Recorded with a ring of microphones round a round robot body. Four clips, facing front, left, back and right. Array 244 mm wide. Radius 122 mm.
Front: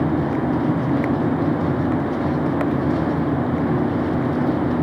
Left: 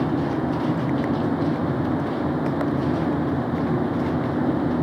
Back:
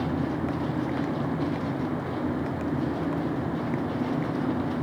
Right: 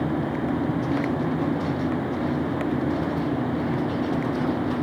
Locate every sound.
Only background noise.